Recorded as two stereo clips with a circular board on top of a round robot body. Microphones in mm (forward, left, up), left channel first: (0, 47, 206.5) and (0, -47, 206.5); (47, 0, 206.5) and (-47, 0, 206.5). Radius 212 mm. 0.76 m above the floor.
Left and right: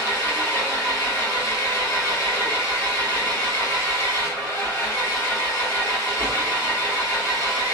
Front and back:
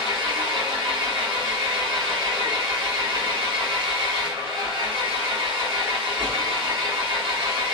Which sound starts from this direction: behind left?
An engine running, at 0.0 s.